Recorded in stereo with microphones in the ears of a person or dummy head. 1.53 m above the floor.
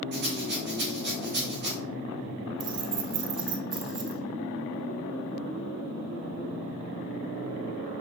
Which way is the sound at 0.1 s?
50° right (ahead or behind).